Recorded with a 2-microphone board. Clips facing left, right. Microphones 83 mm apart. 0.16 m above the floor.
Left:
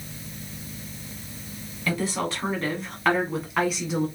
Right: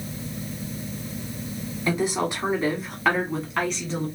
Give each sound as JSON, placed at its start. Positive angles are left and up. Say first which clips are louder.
{"t": 1.9, "sound": "a woman speaking", "louder": "right 2 dB", "side_deg": -20, "distance_m": 1.0}